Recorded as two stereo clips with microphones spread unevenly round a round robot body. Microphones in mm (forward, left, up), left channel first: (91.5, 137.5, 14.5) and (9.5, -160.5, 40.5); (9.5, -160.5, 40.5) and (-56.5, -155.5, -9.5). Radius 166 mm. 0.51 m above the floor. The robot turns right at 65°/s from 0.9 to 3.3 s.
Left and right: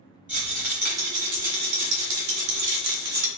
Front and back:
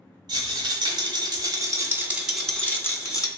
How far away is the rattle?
About 0.9 m.